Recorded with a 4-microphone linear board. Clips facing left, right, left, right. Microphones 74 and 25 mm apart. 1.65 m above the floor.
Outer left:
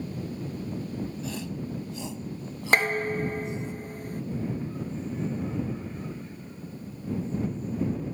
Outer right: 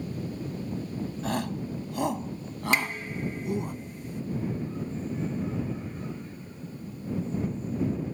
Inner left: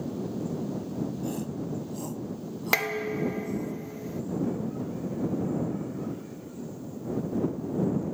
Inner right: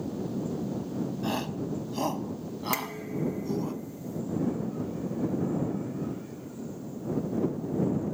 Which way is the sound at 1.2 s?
55° right (ahead or behind).